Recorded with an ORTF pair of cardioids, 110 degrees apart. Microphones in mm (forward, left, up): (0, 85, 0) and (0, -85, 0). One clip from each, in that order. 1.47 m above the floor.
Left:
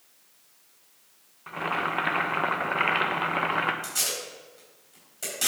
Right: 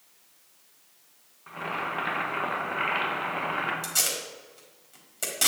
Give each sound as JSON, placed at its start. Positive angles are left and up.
{"t": 1.5, "sound": "boiling", "azimuth_deg": 30, "distance_m": 1.1}
{"t": 3.8, "sound": "tape being pulled", "azimuth_deg": -30, "distance_m": 4.0}